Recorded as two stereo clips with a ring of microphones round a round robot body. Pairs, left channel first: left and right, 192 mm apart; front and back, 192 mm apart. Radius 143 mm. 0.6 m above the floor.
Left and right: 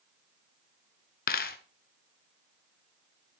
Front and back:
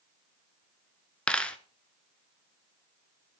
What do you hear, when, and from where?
1.3 s a dropped coin: 85° left, 0.7 m